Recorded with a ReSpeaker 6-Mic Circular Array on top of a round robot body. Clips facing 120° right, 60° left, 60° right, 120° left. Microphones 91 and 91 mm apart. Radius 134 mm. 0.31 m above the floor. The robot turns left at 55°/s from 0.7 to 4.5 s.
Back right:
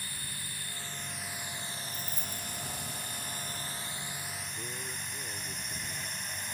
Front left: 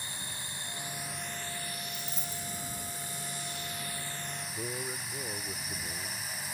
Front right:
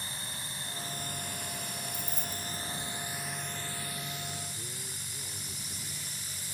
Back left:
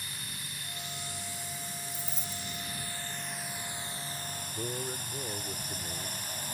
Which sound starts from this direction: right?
Keys jangling, at 1.9 s.